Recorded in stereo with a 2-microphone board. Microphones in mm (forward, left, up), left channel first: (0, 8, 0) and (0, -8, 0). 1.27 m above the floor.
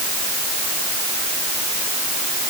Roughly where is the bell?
I don't hear a bell.